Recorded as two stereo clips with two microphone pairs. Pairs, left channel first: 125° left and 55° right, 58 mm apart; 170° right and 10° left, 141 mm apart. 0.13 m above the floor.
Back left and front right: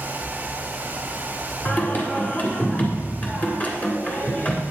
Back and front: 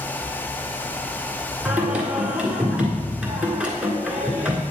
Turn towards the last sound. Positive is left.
turn(degrees=85)